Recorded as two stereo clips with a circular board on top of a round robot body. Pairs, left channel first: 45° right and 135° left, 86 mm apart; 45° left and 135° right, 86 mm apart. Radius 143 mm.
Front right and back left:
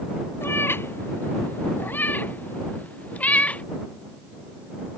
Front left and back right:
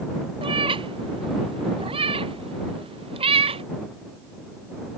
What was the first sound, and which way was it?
A cat meowing, 110° right.